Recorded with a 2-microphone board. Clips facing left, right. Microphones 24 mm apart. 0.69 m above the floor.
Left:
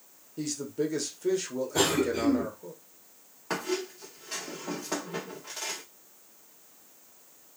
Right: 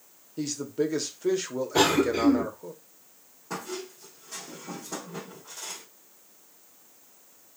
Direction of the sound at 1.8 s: 40° right (ahead or behind).